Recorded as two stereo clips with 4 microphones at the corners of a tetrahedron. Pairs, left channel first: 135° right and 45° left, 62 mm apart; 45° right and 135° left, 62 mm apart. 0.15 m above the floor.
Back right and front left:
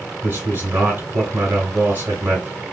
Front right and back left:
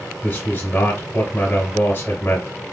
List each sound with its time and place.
0.2 s a man speaking: 5° left, 2 m